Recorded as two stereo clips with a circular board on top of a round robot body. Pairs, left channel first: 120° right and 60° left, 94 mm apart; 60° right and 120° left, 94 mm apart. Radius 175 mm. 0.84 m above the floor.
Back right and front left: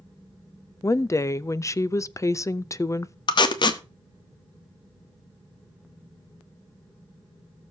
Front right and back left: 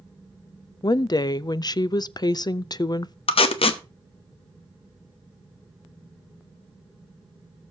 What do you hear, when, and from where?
0.8 s a woman speaking: 75° right, 0.5 m
3.3 s tape being pulled: 80° right, 0.8 m